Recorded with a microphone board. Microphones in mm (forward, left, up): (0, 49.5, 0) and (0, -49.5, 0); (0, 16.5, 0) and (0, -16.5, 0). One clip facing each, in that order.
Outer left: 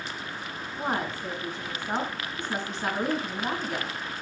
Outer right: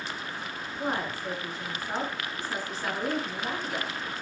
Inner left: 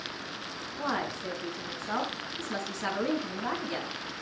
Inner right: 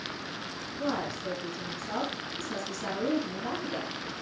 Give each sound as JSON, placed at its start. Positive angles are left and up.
{"t": 0.8, "sound": "a woman speaking", "side_deg": 30, "distance_m": 3.0}